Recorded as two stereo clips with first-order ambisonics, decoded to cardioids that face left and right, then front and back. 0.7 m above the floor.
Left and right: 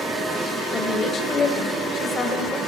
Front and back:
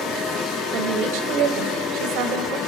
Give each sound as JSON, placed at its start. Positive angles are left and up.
{"t": 0.7, "sound": "a woman speaking", "azimuth_deg": 160, "distance_m": 3.0}